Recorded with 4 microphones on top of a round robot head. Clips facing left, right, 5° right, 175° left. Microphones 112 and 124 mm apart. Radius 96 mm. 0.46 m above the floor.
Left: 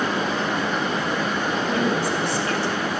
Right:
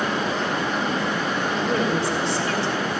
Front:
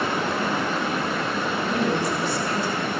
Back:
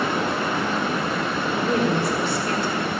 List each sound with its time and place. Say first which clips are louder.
1.6 s a woman speaking: even, back 3 dB; 155° right, 3 m